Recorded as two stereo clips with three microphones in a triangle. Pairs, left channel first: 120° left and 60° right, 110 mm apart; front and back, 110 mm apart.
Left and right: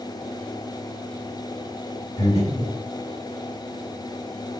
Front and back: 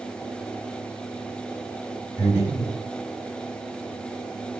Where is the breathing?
115° left, 2.5 m.